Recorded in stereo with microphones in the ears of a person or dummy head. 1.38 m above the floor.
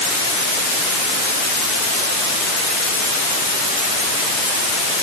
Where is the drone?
I don't hear a drone.